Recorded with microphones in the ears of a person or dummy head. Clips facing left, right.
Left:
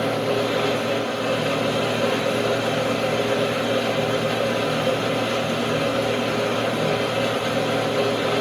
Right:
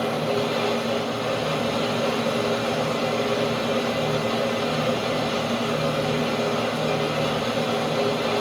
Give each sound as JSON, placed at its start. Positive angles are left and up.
{"t": 0.0, "sound": "a machine running", "side_deg": 35, "distance_m": 1.0}